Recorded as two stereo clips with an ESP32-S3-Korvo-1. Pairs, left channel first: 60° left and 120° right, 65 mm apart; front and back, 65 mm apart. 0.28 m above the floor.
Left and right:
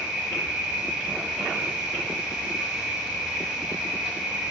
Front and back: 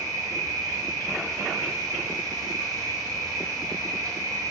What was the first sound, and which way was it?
An insect, 165° left.